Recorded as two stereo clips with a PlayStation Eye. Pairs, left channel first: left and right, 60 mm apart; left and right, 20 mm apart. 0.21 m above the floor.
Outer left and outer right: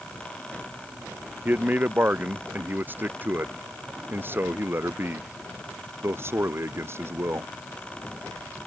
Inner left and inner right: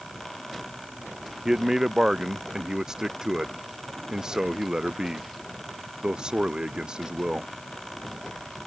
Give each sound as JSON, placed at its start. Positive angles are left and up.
{"t": 1.4, "sound": "a man speaking", "side_deg": -30}